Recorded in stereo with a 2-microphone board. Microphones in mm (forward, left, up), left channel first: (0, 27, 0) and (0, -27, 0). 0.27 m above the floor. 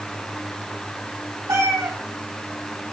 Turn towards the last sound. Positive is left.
turn(degrees=-85)